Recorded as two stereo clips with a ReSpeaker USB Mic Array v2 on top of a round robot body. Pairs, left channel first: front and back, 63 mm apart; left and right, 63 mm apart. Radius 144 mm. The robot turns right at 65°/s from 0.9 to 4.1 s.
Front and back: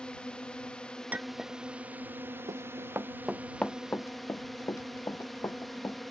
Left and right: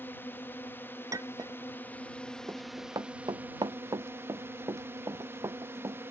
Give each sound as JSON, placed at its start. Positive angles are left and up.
{"t": 0.0, "sound": "a drone", "azimuth_deg": 65}
{"t": 1.1, "sound": "a clink", "azimuth_deg": -115}
{"t": 2.5, "sound": "running footsteps", "azimuth_deg": -155}